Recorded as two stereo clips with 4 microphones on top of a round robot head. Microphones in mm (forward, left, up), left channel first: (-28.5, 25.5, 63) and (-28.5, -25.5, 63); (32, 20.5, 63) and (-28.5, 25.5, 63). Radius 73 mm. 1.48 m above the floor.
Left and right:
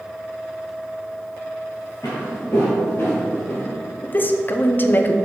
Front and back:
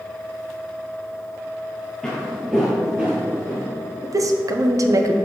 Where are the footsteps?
75° left, 1.6 m; by 3.7 s 130° left, 2 m.